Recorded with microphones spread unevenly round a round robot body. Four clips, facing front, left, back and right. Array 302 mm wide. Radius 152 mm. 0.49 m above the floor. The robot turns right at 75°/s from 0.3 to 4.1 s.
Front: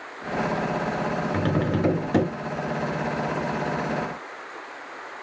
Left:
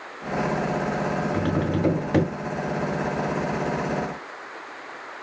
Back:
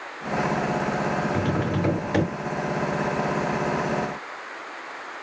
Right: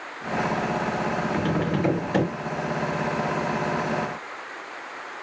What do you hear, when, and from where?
1.3 s tapping: 5° left, 3.5 m; by 2.3 s 75° left, 3.5 m